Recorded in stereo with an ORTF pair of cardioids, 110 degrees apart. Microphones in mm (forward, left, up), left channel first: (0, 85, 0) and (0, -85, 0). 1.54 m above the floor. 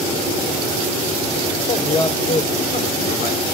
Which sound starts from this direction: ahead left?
A man speaking, at 1.7 s.